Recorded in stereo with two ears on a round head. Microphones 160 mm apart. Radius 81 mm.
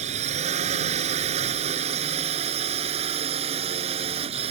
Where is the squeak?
No squeak in this recording.